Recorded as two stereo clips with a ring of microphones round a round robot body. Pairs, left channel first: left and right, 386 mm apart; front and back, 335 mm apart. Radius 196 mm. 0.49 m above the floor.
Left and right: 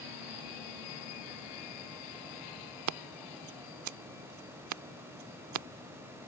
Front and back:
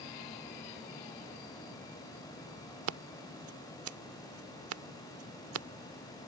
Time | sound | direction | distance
2.9 | scissors | 135° right | ?